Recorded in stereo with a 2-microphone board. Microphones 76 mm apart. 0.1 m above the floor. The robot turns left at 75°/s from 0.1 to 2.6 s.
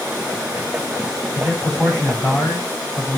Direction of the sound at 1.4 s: 145° right.